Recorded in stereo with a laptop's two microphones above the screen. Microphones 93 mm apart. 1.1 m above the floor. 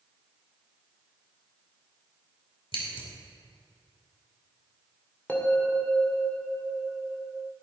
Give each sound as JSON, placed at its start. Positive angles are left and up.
{"t": 2.7, "sound": "scissors", "side_deg": 85, "distance_m": 2.5}
{"t": 5.3, "sound": "a bell", "side_deg": 20, "distance_m": 2.0}